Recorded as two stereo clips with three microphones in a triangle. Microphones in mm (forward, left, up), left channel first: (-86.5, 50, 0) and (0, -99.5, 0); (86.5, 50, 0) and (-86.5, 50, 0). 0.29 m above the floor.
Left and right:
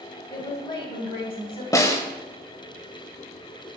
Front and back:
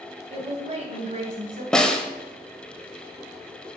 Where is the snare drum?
80° left, 0.9 m.